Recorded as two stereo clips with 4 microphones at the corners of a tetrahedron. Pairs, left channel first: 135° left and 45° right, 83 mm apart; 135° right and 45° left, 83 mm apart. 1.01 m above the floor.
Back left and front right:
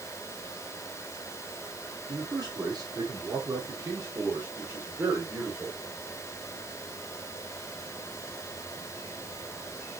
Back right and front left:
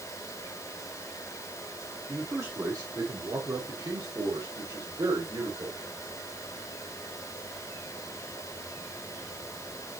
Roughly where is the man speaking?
Ahead.